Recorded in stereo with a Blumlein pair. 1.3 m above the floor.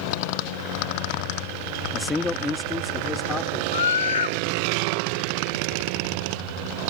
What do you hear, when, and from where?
1.9 s a man speaking: 10° left; by 3.6 s 15° left
3.7 s a scream: 65° left